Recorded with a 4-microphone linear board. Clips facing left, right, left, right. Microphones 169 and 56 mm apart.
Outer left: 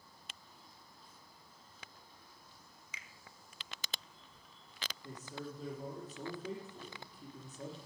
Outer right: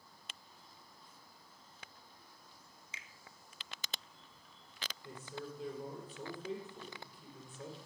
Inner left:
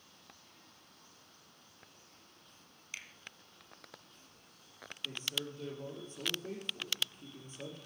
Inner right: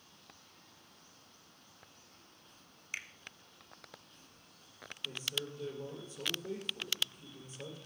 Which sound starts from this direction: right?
A finger snap, at 2.9 s.